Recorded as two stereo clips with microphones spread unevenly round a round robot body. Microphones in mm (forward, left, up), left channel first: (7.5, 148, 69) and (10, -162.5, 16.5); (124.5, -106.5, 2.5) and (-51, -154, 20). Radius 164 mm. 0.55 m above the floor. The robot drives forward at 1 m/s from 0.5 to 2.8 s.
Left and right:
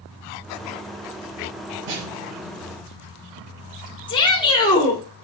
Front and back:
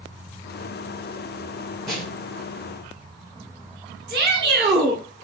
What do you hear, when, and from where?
1.9 s a snare drum: 75° right, 4.5 m; by 2.6 s 85° right, 4.5 m
4.1 s a shout: 170° left, 1.6 m